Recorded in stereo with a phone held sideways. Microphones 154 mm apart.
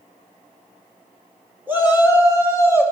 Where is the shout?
15° right (ahead or behind), 1.7 m.